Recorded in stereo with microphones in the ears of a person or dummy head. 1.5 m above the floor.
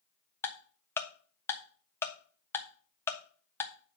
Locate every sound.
0.4 s ticking: 15° left (ahead or behind), 1.1 m